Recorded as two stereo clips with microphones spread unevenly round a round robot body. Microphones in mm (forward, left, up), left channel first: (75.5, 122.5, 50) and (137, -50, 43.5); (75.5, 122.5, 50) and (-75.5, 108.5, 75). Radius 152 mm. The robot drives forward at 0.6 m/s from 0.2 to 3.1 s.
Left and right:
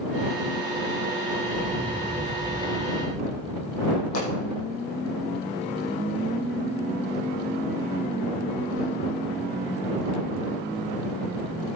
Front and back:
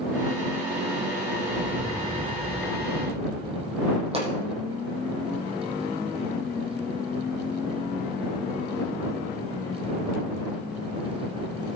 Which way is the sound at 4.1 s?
135° left.